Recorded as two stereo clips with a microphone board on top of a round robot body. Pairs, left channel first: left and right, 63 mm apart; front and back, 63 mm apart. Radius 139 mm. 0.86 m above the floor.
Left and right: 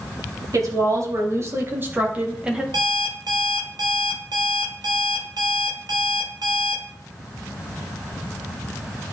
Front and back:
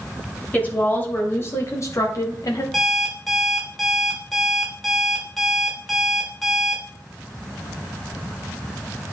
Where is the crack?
I don't hear a crack.